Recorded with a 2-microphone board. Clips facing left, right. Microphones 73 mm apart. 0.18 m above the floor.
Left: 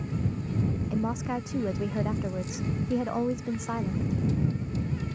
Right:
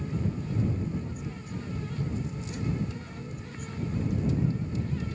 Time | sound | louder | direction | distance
0.9 | a woman speaking | left 7 dB | 80° left | ?